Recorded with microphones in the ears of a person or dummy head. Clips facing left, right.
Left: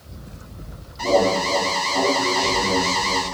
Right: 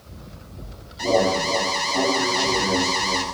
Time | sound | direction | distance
1.0 | an alarm | 10° right (ahead or behind) | 7 m